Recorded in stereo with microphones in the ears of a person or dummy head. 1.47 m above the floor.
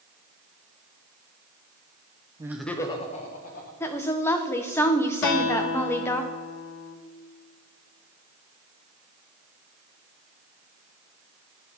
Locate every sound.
2.4 s laughter: 15° right (ahead or behind), 0.5 m; by 3.7 s 50° left (ahead or behind), 1.2 m
3.8 s a woman speaking: 15° left (ahead or behind), 0.6 m
5.2 s a guitar: 75° left (ahead or behind), 0.6 m